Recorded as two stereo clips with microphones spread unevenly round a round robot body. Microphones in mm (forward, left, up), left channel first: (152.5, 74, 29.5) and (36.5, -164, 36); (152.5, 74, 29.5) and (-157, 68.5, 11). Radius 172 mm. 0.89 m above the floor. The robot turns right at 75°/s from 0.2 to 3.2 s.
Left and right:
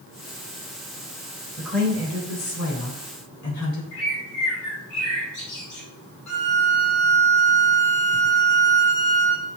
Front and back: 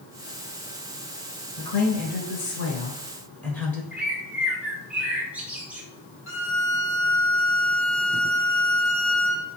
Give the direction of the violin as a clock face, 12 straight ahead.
10 o'clock.